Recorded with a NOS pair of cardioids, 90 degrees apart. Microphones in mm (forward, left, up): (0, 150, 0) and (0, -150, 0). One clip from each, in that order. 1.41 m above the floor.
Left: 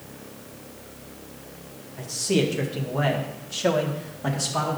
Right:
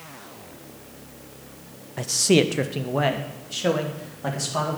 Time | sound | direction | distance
2.0 | a man speaking | 60° right | 0.6 m